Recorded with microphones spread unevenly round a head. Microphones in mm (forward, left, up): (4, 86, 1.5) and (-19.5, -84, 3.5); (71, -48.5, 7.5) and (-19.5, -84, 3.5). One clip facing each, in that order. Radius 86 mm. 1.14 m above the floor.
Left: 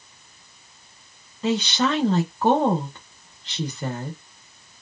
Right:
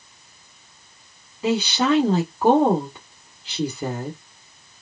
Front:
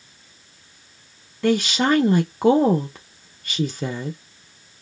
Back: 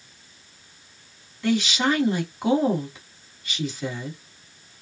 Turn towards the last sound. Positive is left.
turn(degrees=-15)